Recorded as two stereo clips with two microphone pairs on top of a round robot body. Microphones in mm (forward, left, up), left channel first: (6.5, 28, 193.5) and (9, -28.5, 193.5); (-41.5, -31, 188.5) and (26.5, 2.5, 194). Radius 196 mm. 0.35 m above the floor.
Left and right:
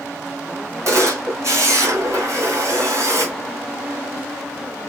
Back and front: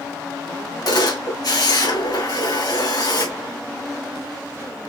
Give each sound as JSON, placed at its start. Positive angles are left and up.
{"t": 0.8, "sound": "a camera shutter", "azimuth_deg": -120, "distance_m": 3.5}